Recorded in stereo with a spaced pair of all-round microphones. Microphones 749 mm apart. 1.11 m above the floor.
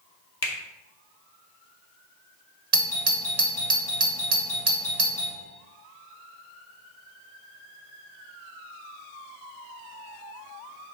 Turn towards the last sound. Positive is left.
turn(degrees=-45)  # may be behind; listen again after turning